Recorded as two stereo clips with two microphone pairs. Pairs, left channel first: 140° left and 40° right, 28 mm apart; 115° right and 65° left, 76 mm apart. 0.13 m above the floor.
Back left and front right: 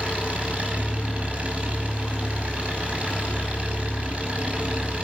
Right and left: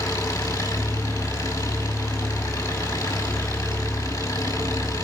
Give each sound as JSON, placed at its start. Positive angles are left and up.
{"t": 0.0, "sound": "an engine running", "azimuth_deg": -80, "distance_m": 6.0}